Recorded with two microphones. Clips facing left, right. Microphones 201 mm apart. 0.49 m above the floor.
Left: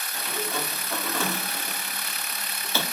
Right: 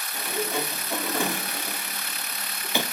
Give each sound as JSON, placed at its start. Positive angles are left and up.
{"t": 0.1, "sound": "a sliding door", "side_deg": -15, "distance_m": 0.7}